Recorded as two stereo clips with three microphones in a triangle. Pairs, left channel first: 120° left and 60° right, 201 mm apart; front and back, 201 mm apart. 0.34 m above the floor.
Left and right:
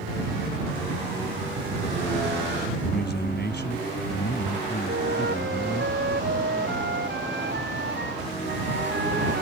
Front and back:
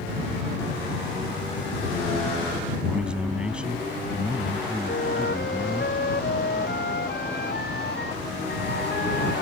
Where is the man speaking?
95° left.